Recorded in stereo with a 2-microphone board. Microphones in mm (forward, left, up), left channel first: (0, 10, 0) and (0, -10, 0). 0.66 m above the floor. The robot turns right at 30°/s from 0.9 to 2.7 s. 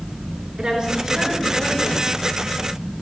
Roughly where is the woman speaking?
Ahead right.